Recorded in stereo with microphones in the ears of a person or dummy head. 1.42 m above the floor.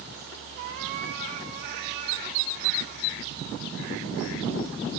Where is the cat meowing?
50° right (ahead or behind), 1.7 m.